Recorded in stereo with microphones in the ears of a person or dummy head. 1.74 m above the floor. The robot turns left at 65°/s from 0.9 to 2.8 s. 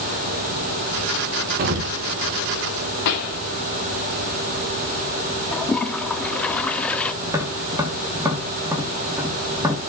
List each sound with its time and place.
1.6 s an explosion: 45° right (ahead or behind), 1.1 m
3.0 s a pop: 60° left (ahead or behind), 2.5 m
5.5 s a toilet flushing: 5° left (ahead or behind), 0.5 m
7.2 s tapping: 10° right (ahead or behind), 2.5 m